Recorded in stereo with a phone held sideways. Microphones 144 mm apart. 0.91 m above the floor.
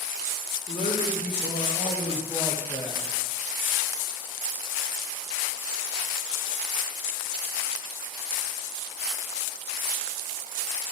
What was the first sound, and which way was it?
A man speaking, 65° left (ahead or behind).